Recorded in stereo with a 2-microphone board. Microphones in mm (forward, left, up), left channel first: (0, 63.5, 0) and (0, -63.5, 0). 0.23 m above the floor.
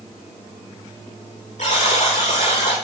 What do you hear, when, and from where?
1.6 s a buzzer: 65° left (ahead or behind), 9.5 m